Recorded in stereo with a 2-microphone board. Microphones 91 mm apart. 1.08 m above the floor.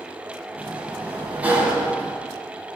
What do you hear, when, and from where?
0.6 s a sliding door: 15° right (ahead or behind), 2.5 m